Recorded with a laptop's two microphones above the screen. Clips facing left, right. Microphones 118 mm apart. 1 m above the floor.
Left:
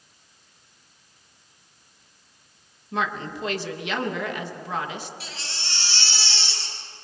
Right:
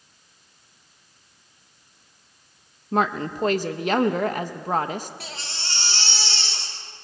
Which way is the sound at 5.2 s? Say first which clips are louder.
Right 2 dB; 50° right (ahead or behind).